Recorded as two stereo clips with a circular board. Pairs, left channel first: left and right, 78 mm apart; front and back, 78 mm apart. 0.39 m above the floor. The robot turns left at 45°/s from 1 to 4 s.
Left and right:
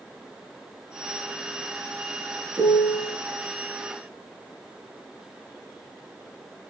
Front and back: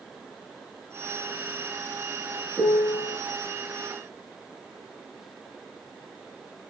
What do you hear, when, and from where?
2.6 s a piano: 100° right, 3 m; by 3.2 s 130° right, 3 m